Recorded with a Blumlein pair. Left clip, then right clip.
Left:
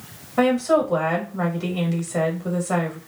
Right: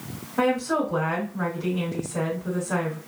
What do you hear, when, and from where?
0.4 s a woman speaking: 65° left, 1.5 m